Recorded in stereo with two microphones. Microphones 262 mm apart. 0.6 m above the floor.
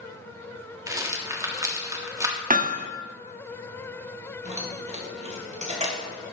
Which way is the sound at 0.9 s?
10° right (ahead or behind).